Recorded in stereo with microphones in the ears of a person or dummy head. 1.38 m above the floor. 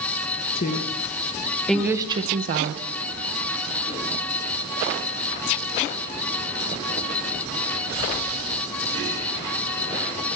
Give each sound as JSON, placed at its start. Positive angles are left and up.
{"t": 0.6, "sound": "a woman speaking", "side_deg": 45, "distance_m": 0.9}